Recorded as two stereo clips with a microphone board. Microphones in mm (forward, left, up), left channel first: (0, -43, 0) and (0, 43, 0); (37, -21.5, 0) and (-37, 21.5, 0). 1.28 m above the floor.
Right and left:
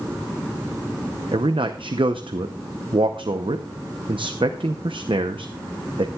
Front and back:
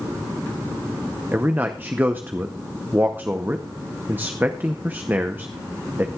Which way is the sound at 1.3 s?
80° left.